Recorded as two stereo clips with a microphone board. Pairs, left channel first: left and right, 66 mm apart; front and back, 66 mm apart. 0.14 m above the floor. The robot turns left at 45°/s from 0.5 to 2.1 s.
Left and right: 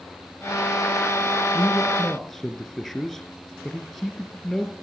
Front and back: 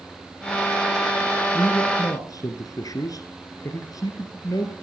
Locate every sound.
1.5 s a man speaking: 25° left, 2.5 m; by 4.7 s straight ahead, 2.5 m